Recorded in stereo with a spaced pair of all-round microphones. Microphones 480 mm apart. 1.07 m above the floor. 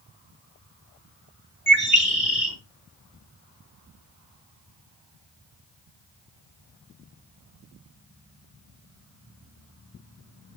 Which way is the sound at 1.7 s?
25° left (ahead or behind).